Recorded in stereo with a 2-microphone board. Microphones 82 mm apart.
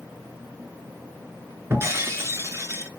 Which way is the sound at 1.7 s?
35° right (ahead or behind).